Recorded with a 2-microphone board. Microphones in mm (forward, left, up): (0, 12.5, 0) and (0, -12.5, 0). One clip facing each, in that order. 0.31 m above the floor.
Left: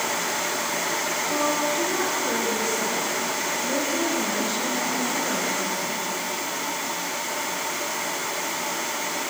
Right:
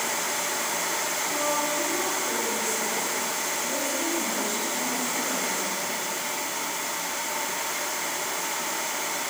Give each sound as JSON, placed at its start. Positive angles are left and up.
{"t": 1.3, "sound": "a woman speaking", "side_deg": 25, "distance_m": 5.5}